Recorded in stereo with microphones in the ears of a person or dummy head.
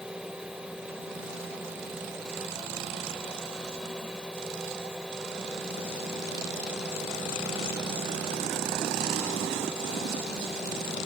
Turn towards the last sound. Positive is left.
turn(degrees=0)  # may be behind; listen again after turning